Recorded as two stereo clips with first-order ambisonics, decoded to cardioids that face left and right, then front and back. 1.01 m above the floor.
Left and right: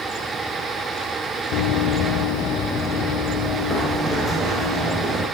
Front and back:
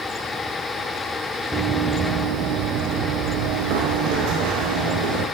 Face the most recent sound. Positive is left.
turn(degrees=170)